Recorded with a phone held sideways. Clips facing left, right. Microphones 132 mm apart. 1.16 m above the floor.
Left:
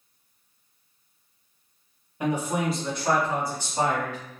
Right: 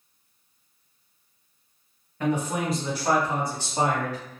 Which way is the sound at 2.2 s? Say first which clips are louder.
Even; 15° left (ahead or behind).